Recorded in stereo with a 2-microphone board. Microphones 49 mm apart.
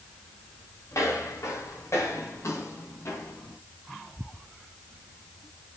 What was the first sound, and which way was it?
Footsteps, 70° left (ahead or behind).